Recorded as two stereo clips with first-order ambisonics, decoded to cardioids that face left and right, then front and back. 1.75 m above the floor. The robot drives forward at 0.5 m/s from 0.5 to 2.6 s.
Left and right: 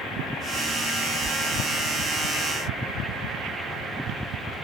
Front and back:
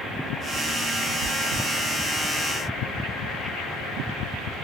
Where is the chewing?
155° right, 0.5 m; by 1.7 s 165° right, 0.7 m.